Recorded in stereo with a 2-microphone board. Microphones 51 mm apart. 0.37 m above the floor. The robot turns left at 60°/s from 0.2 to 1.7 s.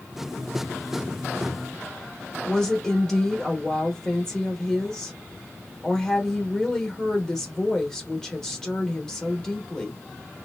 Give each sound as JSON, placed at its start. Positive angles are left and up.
{"t": 2.5, "sound": "a woman speaking", "side_deg": 10, "distance_m": 0.8}